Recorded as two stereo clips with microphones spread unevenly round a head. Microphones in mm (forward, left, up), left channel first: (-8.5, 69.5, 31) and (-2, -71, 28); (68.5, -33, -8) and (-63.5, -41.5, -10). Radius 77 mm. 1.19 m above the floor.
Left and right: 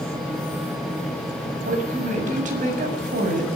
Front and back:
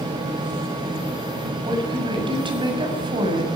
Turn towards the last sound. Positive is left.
turn(degrees=-125)